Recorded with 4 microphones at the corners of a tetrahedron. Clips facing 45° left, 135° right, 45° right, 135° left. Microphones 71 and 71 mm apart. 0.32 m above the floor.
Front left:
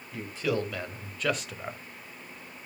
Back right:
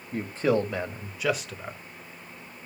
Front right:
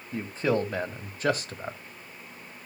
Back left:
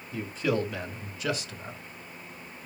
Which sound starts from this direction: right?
A man speaking, at 0.1 s.